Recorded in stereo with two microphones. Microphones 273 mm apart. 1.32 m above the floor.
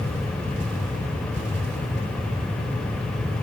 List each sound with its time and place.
Only background noise.